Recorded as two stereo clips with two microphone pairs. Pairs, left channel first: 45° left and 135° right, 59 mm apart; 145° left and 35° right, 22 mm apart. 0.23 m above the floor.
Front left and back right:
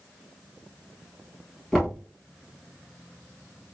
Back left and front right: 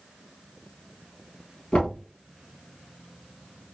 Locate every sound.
1.7 s knocking: 125° left, 4 m